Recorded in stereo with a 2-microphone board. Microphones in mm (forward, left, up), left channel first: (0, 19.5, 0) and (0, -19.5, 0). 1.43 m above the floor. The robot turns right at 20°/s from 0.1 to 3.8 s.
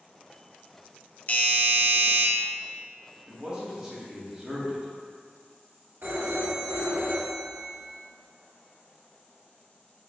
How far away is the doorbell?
About 0.7 m.